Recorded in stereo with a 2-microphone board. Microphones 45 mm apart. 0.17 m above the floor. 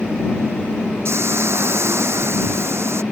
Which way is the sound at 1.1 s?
75° right (ahead or behind).